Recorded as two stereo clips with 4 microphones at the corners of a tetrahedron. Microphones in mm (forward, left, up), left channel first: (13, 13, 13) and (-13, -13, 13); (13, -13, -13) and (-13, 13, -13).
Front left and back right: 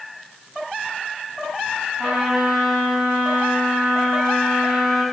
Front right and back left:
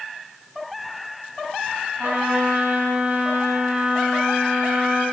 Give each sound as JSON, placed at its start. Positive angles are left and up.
{"t": 2.0, "sound": "a trumpet", "azimuth_deg": 180, "distance_m": 9.0}